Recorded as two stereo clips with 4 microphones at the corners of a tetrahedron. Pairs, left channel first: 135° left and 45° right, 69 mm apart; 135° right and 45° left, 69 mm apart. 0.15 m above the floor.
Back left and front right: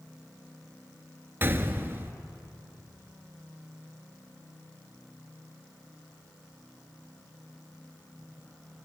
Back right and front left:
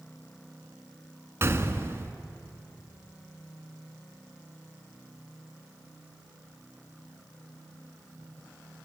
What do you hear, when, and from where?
1.4 s a gunshot: 5° left, 1.5 m